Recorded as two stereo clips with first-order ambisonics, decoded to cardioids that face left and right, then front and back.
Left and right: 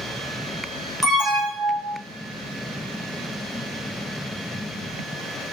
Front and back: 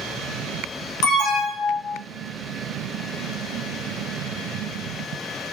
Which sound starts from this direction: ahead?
An alarm, at 1.0 s.